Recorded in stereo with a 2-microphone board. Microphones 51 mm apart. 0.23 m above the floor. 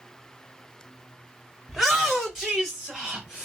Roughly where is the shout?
Centre.